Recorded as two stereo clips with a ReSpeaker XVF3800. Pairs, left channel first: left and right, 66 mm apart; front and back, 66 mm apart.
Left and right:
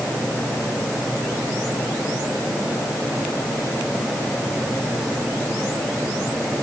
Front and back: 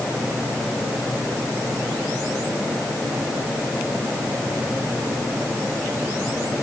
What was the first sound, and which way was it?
Only background noise.